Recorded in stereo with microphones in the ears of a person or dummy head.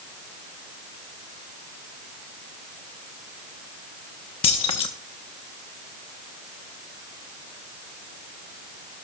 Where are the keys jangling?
25° left (ahead or behind), 0.8 m.